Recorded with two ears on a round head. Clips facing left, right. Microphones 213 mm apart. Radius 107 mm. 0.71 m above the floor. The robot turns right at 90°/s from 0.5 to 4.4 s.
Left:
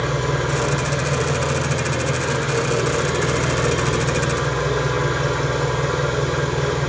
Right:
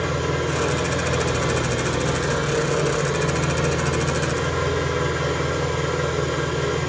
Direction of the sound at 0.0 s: Straight behind.